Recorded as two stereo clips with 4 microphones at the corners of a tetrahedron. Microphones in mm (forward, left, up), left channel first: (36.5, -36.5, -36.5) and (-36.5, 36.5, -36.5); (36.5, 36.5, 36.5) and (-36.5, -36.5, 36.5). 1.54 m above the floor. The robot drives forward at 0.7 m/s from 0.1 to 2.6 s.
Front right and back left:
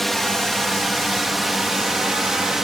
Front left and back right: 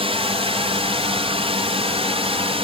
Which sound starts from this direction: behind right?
A drone, at 0.0 s.